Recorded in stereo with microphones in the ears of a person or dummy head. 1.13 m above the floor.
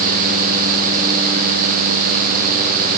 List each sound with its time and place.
Only background noise.